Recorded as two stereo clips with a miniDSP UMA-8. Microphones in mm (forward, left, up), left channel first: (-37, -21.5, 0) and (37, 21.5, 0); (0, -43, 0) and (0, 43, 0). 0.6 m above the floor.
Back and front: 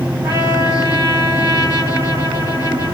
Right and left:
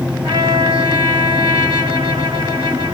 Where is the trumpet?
75° left, 3 m.